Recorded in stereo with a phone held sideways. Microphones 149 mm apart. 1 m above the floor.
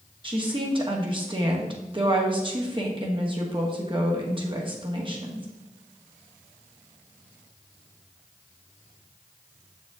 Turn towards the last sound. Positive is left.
turn(degrees=-35)  # may be behind; listen again after turning